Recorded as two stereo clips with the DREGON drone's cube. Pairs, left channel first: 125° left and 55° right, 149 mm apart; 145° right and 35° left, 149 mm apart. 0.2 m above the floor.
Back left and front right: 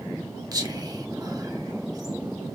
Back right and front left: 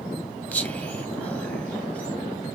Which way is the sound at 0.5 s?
75° right.